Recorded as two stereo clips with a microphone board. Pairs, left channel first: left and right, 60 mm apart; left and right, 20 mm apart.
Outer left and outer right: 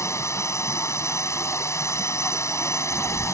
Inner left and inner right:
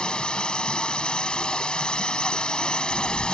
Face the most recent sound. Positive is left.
turn(degrees=55)  # may be behind; listen again after turning